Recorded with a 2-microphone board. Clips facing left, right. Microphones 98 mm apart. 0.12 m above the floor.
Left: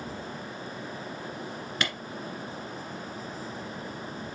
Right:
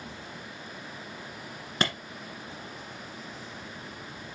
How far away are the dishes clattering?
I don't hear dishes clattering.